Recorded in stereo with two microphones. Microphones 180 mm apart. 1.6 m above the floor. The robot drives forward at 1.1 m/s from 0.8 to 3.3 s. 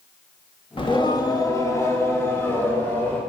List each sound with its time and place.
0.8 s singing: 30° left (ahead or behind), 1.3 m; by 3.2 s 10° left (ahead or behind), 3.5 m